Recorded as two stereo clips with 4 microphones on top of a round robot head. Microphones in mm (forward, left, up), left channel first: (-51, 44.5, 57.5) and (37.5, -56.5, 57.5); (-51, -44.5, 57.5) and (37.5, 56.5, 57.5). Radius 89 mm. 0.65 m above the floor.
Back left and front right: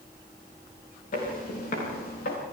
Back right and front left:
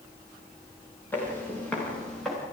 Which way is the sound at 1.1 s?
155° left.